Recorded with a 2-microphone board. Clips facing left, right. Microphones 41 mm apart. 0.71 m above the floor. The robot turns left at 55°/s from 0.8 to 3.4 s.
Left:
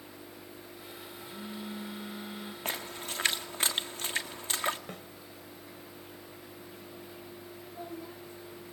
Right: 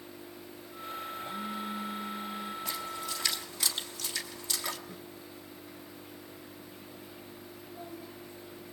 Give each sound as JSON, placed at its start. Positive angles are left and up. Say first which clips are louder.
{"t": 1.2, "sound": "a phone buzzing", "louder": "right 2 dB", "azimuth_deg": -125, "distance_m": 3.5}
{"t": 2.6, "sound": "a splash", "louder": "right 1 dB", "side_deg": 55, "distance_m": 1.6}
{"t": 4.9, "sound": "a snare drum", "louder": "left 2 dB", "side_deg": 75, "distance_m": 2.5}
{"t": 7.6, "sound": "a child speaking", "louder": "left 3 dB", "side_deg": 15, "distance_m": 1.2}